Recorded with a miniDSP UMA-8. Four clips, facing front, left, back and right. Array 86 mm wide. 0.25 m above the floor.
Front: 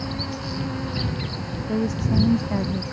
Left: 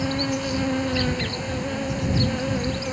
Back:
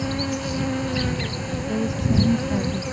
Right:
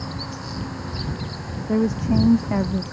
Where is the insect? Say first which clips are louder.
Left 8 dB, back 4 dB; 115° left.